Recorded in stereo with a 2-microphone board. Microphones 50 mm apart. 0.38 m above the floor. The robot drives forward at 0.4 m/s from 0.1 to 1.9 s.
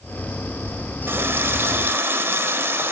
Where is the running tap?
50° right (ahead or behind), 1.0 m; by 2.9 s 55° right (ahead or behind), 1.0 m.